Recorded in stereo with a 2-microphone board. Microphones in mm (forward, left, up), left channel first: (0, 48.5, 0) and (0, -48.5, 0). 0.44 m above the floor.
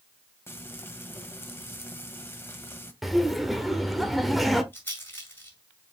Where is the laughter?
Centre (ahead or behind), 1.5 m.